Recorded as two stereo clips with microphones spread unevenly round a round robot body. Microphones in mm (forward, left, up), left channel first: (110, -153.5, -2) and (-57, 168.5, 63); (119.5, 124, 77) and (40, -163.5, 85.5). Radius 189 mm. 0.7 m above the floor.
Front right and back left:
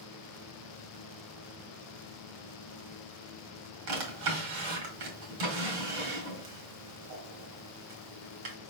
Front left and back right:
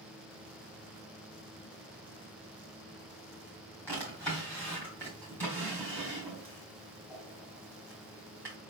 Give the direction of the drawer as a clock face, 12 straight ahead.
7 o'clock.